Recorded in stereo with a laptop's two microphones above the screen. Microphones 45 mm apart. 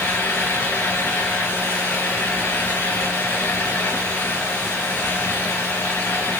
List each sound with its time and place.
0.0 s a fan: 65° left (ahead or behind), 3 m